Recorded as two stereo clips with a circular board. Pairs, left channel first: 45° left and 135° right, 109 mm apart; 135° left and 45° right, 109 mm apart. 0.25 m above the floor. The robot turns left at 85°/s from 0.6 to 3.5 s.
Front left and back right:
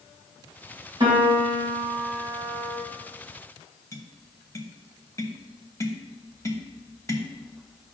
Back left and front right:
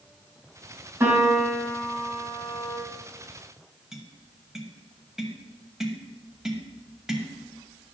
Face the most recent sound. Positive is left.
turn(degrees=35)